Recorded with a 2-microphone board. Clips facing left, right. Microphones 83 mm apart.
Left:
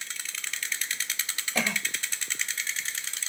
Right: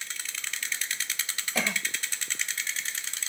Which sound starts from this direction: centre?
A cough, at 1.6 s.